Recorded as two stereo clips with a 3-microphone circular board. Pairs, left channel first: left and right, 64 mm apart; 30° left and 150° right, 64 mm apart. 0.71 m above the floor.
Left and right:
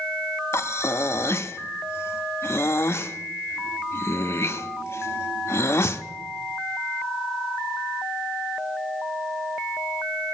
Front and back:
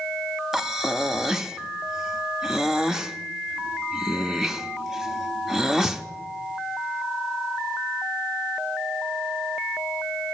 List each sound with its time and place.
0.5 s breathing: 130° left, 0.5 m